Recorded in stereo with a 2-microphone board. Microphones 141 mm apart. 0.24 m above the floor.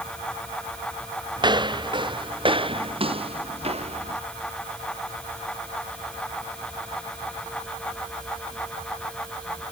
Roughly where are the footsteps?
Right.